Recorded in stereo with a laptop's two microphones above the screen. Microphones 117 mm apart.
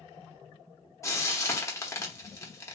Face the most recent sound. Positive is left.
turn(degrees=25)  # may be behind; listen again after turning